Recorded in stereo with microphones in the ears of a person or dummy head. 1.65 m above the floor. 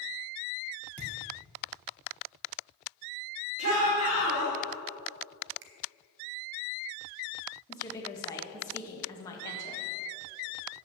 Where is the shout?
40° right (ahead or behind), 3.5 m.